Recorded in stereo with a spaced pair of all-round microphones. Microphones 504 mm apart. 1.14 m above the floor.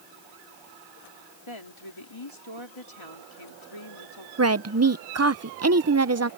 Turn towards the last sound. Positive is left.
turn(degrees=-30)  # may be behind; listen again after turning